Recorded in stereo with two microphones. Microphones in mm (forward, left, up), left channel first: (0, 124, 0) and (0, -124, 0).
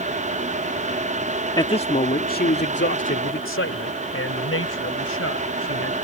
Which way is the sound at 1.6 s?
15° left (ahead or behind).